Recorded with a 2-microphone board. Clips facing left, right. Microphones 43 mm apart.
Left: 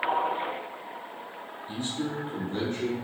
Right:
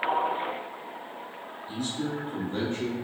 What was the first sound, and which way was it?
A man speaking, 35° left (ahead or behind).